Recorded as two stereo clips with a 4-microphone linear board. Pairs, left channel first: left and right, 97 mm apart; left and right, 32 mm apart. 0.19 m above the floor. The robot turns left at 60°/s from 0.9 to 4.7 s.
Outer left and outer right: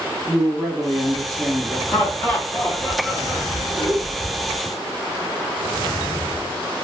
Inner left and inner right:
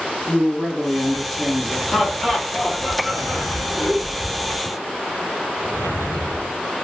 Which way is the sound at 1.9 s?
15° left (ahead or behind).